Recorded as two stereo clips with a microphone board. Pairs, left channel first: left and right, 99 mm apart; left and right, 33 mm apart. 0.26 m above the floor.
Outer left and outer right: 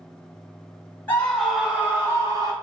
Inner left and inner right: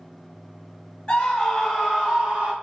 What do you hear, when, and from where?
1.1 s a scream: 20° left (ahead or behind), 0.9 m; by 2.5 s 40° right (ahead or behind), 1.3 m